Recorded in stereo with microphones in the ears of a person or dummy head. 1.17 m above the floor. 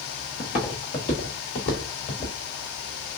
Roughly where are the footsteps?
Left.